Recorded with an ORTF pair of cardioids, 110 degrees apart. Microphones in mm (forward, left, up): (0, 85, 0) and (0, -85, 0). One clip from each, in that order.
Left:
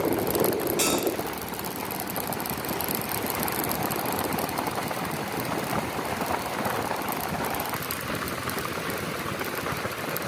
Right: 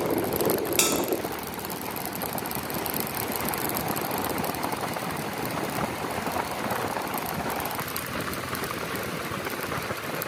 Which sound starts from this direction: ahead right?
A bell, at 0.8 s.